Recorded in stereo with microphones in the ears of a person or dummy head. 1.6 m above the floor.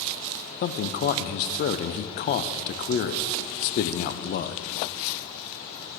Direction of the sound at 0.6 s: 50° left (ahead or behind).